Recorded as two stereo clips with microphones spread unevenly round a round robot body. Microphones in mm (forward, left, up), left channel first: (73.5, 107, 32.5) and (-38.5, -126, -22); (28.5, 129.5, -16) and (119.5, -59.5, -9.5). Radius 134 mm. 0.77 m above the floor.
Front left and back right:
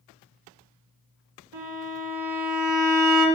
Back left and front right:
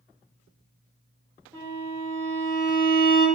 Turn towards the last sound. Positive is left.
turn(degrees=-145)